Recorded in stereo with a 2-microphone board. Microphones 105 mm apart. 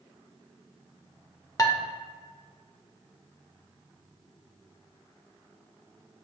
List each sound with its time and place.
1.6 s dishes clattering: 30° left (ahead or behind), 0.5 m